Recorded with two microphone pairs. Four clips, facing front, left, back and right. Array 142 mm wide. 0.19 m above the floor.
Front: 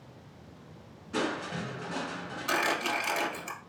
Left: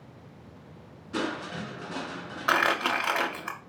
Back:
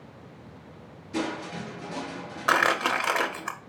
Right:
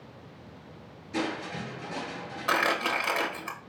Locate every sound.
1.1 s crushing: 60° left, 2 m
2.5 s crumpling: 160° left, 0.7 m